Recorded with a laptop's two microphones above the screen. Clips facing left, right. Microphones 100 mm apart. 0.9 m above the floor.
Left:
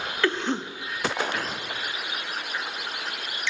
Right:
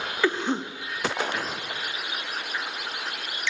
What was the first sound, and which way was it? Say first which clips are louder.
A cough: right 1 dB; 10° right (ahead or behind).